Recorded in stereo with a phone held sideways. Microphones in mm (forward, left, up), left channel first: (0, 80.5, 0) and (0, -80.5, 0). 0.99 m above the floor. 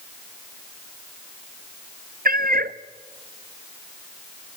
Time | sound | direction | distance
2.2 | a cat meowing | 65° right (ahead or behind) | 0.6 m